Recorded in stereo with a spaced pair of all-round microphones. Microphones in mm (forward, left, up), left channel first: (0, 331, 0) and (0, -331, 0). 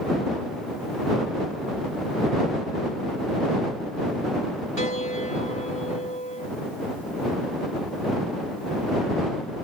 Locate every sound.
4.8 s a piano: 65° right (ahead or behind)